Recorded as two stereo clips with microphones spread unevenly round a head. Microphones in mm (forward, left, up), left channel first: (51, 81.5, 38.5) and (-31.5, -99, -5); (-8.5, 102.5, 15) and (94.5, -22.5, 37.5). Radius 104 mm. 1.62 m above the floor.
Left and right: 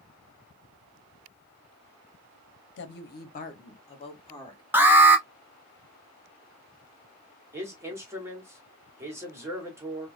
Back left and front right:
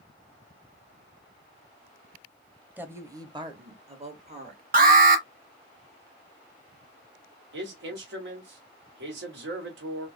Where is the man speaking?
40° right, 1.7 m.